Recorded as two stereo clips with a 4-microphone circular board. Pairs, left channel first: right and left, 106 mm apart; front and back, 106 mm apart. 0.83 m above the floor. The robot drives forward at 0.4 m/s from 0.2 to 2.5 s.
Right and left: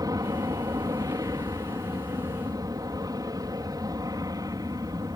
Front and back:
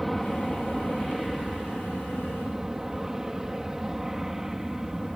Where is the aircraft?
90° left; by 5.2 s 95° left.